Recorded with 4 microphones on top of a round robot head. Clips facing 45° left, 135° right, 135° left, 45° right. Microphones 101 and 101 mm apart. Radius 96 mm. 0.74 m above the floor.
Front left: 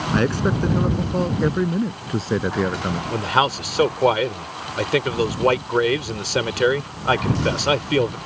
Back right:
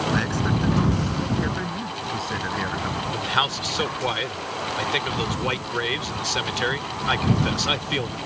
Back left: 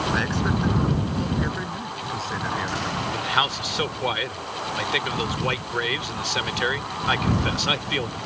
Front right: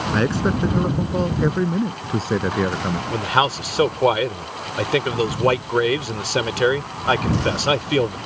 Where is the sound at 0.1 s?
5° left; by 3.0 s 5° right.